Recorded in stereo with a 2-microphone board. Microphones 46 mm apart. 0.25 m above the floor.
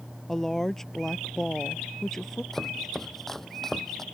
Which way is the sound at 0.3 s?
5° left (ahead or behind).